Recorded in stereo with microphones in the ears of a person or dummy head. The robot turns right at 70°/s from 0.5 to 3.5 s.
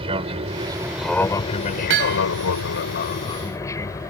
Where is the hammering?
70° right (ahead or behind); by 2.2 s 45° right (ahead or behind).